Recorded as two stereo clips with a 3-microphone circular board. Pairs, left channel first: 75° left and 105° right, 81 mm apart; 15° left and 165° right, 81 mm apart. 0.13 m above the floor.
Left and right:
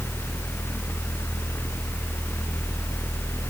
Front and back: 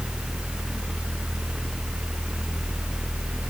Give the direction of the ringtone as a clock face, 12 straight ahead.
I don't hear a ringtone.